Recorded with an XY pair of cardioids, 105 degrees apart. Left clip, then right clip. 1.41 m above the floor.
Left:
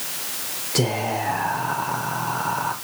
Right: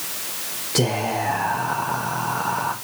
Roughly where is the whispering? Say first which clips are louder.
Right 1 dB; ahead.